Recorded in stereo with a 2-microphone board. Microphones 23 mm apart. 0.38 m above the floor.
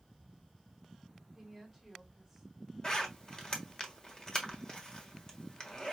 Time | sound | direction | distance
1.4 | a woman speaking | centre (ahead or behind) | 1.5 m
2.8 | a zipper | 35° left (ahead or behind) | 1.3 m